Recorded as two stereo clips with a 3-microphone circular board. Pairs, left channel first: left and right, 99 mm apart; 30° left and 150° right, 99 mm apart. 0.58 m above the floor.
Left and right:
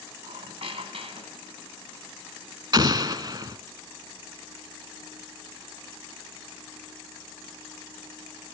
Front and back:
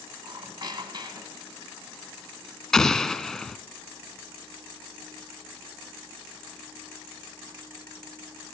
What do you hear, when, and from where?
0.2 s a squeak: 105° right, 1.9 m
2.7 s an explosion: 55° right, 0.8 m